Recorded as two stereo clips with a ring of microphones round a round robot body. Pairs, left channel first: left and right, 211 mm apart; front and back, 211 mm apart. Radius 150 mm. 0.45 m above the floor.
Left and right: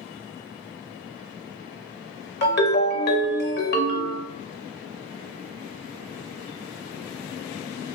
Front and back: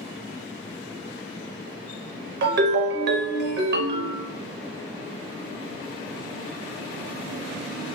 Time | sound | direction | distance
2.4 | a ringtone | 135° left | 0.6 m